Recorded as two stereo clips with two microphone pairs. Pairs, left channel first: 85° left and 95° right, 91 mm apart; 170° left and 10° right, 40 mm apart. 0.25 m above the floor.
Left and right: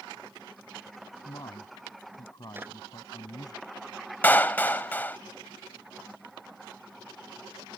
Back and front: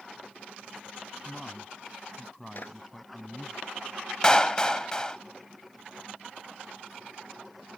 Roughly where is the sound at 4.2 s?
Behind left.